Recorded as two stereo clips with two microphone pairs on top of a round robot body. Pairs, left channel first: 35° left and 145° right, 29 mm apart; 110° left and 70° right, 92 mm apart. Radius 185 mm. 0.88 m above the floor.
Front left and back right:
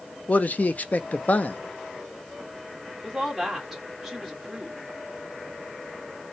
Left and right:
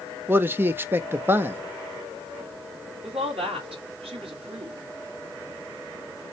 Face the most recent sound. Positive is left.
turn(degrees=-70)